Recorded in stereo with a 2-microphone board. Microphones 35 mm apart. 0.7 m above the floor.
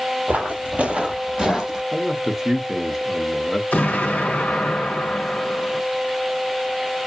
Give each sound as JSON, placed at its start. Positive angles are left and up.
{"t": 0.3, "sound": "footsteps", "side_deg": -45, "distance_m": 0.9}
{"t": 1.9, "sound": "a man speaking", "side_deg": -10, "distance_m": 0.7}
{"t": 3.7, "sound": "an explosion", "side_deg": 55, "distance_m": 1.0}